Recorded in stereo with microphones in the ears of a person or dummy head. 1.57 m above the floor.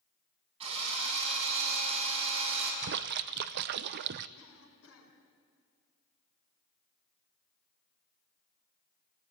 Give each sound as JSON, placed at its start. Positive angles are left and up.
{"t": 0.6, "sound": "a drill", "side_deg": -30, "distance_m": 8.0}
{"t": 2.8, "sound": "a splash", "side_deg": -45, "distance_m": 0.6}
{"t": 4.4, "sound": "a cough", "side_deg": 85, "distance_m": 5.5}